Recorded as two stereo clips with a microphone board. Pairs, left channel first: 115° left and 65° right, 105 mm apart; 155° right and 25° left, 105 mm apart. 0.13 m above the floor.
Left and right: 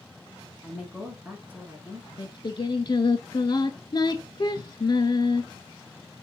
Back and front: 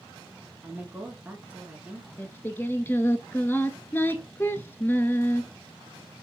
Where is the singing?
140° left, 0.6 m.